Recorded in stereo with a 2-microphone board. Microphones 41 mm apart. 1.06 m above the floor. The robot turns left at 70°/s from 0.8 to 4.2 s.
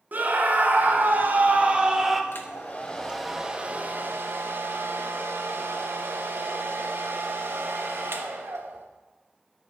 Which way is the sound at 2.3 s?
60° left.